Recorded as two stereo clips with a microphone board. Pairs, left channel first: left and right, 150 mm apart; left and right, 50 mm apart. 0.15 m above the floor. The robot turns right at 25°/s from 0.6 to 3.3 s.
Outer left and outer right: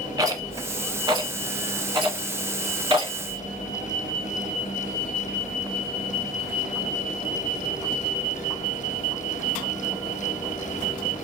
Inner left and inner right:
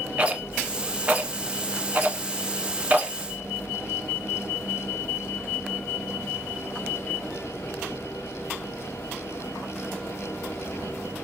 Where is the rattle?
25° right (ahead or behind), 0.9 m; by 3.2 s 30° right (ahead or behind), 0.9 m.